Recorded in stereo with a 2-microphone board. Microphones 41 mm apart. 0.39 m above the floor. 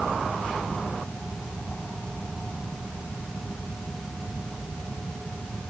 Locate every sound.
Only background noise.